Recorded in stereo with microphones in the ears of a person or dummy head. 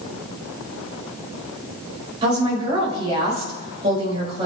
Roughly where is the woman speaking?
Right.